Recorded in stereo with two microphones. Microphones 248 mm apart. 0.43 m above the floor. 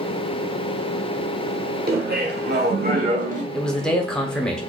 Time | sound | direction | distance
1.9 | laughter | 40° right (ahead or behind) | 1.1 m
3.5 | a man speaking | 5° left (ahead or behind) | 0.8 m